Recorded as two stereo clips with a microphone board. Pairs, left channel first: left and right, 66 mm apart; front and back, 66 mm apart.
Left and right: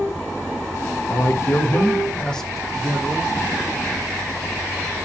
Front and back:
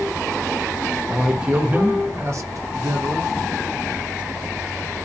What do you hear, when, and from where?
1.1 s a man speaking: 100° left, 0.9 m; by 3.3 s 160° right, 1.0 m